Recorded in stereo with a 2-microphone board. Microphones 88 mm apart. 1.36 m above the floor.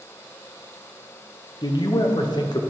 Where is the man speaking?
55° left (ahead or behind), 0.8 m.